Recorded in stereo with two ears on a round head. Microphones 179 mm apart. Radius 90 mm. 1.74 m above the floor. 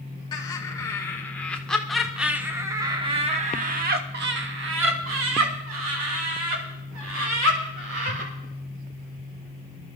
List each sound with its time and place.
0.3 s laughter: 20° left (ahead or behind), 2 m; by 8.3 s 75° right (ahead or behind), 3 m